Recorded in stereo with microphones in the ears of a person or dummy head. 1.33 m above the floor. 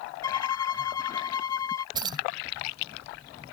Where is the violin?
20° left (ahead or behind).